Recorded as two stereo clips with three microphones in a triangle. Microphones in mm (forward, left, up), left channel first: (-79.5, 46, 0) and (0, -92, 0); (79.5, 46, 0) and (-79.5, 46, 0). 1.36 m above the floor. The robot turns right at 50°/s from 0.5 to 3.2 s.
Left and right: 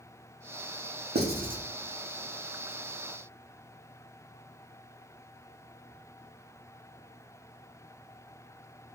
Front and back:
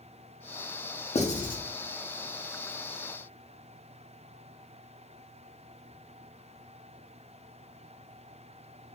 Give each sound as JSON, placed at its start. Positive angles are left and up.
{"t": 1.1, "sound": "writing", "azimuth_deg": -50, "distance_m": 0.8}